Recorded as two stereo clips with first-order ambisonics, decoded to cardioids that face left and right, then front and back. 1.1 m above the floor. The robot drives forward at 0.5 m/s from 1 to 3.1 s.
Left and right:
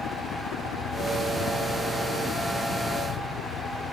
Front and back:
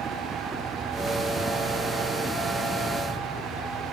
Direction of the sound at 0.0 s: 115° left.